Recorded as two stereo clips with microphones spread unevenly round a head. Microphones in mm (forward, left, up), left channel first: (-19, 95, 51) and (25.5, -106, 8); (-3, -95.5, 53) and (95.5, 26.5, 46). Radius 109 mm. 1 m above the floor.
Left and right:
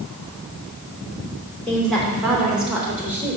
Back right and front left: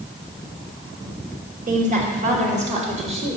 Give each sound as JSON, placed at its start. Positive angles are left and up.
{"t": 1.7, "sound": "a woman speaking", "azimuth_deg": 15, "distance_m": 3.0}